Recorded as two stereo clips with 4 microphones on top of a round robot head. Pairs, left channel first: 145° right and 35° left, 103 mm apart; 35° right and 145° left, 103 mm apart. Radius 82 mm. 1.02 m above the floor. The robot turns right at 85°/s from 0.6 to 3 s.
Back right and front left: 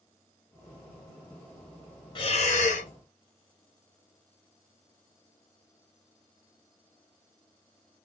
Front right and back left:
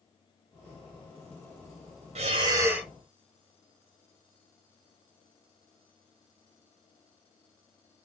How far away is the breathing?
About 1.1 m.